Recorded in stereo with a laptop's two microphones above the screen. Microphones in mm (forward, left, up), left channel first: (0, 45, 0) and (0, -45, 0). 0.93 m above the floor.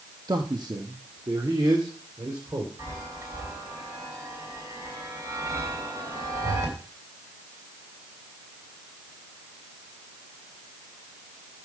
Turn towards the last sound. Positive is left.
turn(degrees=-40)  # may be behind; listen again after turning